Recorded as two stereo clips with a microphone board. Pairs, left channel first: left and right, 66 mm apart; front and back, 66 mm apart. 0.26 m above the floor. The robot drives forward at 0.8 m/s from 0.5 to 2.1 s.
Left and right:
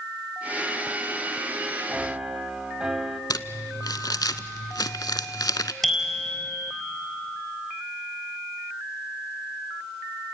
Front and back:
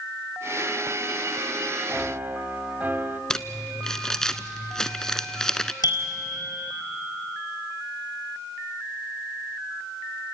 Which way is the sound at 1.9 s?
145° right.